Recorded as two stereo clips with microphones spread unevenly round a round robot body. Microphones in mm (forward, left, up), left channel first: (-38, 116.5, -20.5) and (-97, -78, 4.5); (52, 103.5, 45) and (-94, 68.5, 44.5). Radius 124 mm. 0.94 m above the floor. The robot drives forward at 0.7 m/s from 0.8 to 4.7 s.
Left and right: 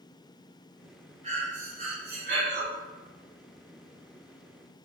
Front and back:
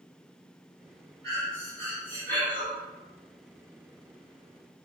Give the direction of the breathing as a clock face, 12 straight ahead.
2 o'clock.